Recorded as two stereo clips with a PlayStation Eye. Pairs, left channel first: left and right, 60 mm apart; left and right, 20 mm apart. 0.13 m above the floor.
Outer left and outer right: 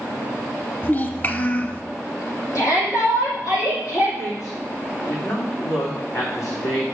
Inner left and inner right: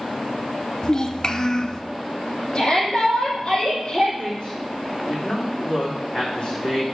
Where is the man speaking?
60° left (ahead or behind), 6 m.